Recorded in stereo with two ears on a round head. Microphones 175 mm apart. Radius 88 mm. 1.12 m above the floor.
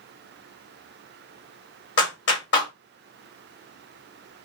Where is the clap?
65° left (ahead or behind), 1.7 m.